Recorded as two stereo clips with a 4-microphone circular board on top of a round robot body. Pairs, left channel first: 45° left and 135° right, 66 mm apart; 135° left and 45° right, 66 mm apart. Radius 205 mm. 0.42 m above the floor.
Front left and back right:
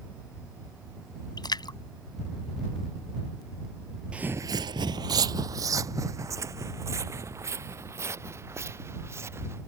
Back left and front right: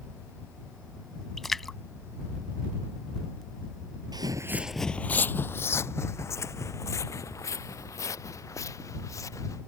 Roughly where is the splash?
Ahead left.